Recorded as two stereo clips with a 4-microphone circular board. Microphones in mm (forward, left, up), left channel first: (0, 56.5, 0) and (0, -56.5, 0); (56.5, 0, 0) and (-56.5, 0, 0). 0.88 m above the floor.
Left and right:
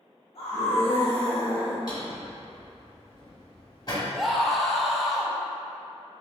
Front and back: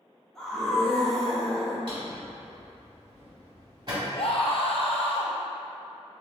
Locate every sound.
0.3 s a scream: 90° left, 1.1 m
1.9 s a drawer: 140° left, 1.8 m
4.1 s a scream: straight ahead, 0.6 m